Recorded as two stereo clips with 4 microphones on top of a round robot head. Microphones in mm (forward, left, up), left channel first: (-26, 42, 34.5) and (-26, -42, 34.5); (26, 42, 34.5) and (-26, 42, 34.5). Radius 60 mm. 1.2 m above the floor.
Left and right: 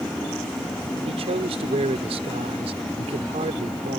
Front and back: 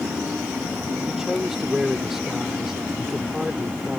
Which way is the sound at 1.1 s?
95° right.